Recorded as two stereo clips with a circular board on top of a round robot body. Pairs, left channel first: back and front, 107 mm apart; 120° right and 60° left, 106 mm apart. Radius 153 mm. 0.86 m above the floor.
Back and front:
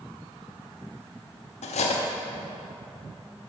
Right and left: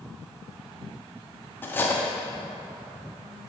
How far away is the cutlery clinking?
About 0.7 m.